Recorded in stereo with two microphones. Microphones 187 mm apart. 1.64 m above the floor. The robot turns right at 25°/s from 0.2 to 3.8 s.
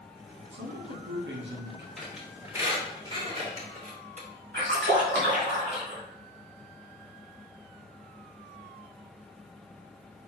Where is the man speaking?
100° right, 1.5 m; by 1.9 s 70° right, 1.5 m.